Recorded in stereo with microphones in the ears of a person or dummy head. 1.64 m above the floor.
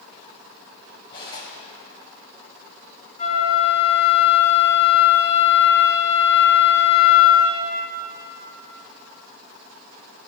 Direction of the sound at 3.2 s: 40° left (ahead or behind).